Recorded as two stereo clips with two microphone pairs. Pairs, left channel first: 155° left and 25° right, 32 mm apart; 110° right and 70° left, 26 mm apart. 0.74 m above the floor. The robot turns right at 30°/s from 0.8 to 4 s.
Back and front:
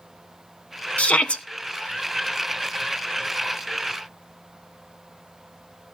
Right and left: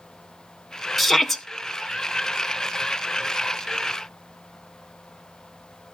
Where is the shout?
160° left, 0.9 m; by 1.4 s 175° left, 0.9 m.